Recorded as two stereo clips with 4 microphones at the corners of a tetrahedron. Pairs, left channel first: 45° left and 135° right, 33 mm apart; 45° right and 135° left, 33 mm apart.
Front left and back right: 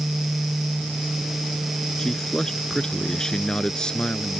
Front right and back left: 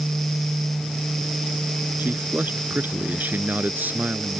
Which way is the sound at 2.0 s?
120° left.